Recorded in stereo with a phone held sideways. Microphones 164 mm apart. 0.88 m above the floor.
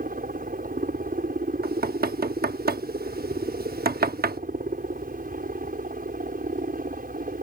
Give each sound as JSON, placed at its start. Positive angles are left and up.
{"t": 0.0, "sound": "a helicopter", "side_deg": -60}
{"t": 1.6, "sound": "knocking", "side_deg": -70}